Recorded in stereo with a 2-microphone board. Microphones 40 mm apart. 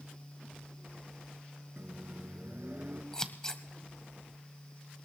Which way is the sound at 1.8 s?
45° right (ahead or behind).